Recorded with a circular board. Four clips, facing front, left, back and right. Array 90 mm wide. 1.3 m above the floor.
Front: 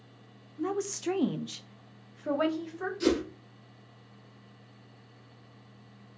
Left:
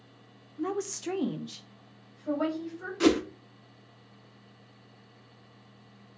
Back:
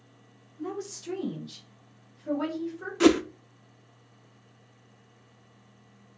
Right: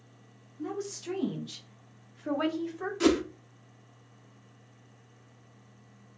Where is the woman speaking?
55° left, 1.0 m; by 2.9 s 40° right, 1.7 m.